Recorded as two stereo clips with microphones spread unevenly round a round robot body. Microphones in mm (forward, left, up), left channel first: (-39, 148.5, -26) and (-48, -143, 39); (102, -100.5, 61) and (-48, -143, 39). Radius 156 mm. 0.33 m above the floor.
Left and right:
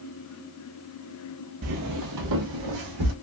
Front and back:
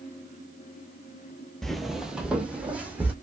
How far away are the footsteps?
About 0.5 m.